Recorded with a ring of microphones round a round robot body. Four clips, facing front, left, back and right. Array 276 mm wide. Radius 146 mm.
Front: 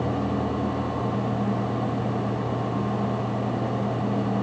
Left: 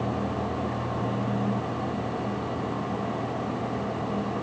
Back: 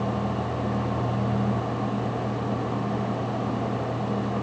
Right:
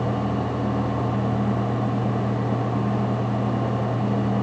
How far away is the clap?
No clap in this recording.